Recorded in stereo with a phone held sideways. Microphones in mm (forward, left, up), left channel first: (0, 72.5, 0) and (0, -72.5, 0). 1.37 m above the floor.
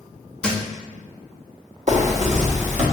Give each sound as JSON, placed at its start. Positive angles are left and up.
{"t": 0.4, "sound": "a thud", "side_deg": 5, "distance_m": 0.8}
{"t": 1.9, "sound": "a zipper", "side_deg": -55, "distance_m": 1.5}